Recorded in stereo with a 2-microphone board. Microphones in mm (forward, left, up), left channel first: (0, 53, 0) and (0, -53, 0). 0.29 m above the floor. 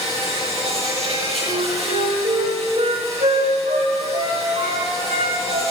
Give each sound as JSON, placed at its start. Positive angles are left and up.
{"t": 0.0, "sound": "an insect", "side_deg": -70, "distance_m": 10.0}
{"t": 1.5, "sound": "a flute", "side_deg": -80, "distance_m": 9.0}